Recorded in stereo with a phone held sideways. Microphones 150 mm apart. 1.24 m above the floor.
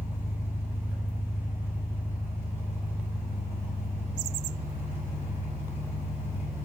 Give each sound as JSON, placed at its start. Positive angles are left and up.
{"t": 0.0, "sound": "an engine running", "side_deg": -15, "distance_m": 3.5}